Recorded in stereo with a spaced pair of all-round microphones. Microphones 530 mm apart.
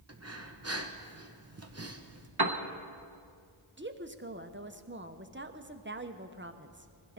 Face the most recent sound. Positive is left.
turn(degrees=-20)  # may be behind; listen again after turning